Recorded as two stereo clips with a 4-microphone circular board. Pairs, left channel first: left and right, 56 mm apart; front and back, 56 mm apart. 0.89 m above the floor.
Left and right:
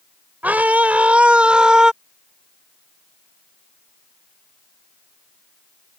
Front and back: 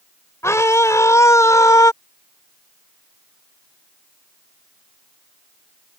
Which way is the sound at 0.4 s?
30° right.